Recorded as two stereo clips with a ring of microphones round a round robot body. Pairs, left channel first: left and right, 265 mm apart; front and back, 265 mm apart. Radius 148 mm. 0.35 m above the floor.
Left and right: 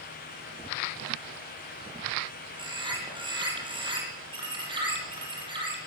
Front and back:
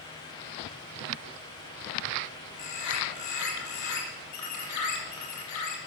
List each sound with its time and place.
2.6 s a bird: 20° right, 8 m